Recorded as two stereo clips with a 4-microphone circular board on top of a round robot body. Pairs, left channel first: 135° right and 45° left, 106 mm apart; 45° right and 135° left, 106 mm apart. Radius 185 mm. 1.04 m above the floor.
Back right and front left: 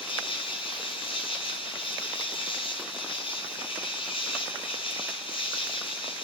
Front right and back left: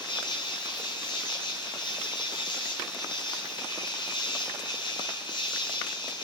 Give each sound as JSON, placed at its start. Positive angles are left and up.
{"t": 0.0, "sound": "an insect", "azimuth_deg": -95, "distance_m": 2.0}